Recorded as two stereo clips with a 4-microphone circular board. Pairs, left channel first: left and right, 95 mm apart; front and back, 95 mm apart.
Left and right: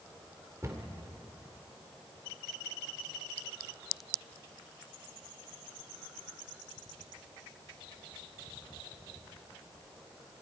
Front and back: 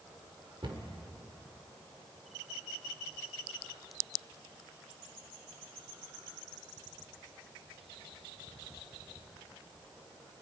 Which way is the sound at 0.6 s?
150° right.